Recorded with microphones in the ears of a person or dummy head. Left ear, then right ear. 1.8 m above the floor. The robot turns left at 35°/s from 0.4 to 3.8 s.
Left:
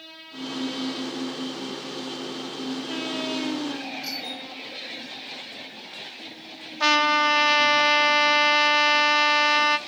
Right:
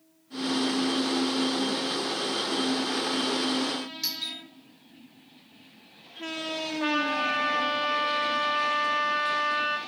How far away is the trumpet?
About 0.6 m.